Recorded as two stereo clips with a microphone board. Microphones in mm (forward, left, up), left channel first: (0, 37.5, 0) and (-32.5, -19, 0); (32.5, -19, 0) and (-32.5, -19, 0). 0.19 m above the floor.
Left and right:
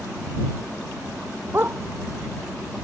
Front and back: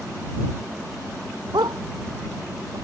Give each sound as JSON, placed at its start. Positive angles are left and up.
{"t": 1.5, "sound": "a dog barking", "azimuth_deg": 180}